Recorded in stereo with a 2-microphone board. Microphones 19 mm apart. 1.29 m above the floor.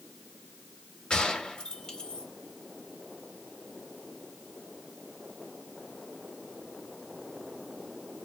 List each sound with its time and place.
1.1 s a gunshot: 60° left (ahead or behind), 2 m